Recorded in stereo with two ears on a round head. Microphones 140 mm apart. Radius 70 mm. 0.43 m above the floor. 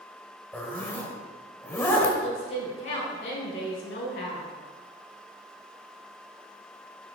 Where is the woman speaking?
50° left (ahead or behind), 2.5 m.